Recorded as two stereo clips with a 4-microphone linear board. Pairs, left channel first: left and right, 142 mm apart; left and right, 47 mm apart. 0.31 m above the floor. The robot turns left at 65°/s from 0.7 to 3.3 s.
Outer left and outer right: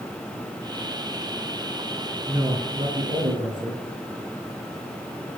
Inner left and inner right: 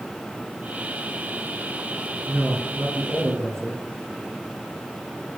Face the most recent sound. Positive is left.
turn(degrees=-80)